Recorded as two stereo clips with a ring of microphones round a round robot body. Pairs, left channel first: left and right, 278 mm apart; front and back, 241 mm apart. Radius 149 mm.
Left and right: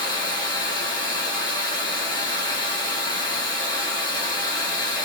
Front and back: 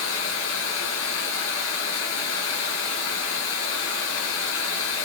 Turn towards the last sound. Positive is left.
turn(degrees=15)